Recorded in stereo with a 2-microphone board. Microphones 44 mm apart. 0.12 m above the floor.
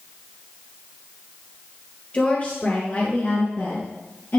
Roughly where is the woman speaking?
Left.